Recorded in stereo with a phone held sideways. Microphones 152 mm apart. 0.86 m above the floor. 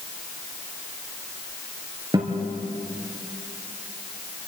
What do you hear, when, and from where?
2.1 s a guitar: 25° right (ahead or behind), 4.5 m